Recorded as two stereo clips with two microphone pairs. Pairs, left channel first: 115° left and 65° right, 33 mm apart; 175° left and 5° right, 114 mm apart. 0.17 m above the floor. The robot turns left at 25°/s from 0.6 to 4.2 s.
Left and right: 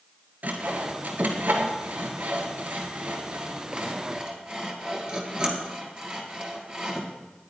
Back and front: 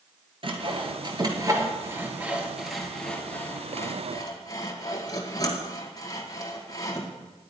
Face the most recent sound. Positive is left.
turn(degrees=-130)